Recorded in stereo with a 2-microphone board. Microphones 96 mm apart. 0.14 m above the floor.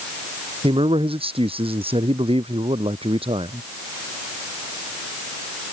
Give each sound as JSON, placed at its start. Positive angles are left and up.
{"t": 0.6, "sound": "a man speaking", "side_deg": -75}